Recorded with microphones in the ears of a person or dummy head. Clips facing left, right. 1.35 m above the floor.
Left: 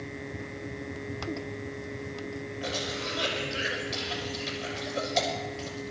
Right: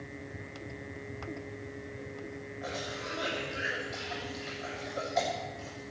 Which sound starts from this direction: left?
A cough, at 2.6 s.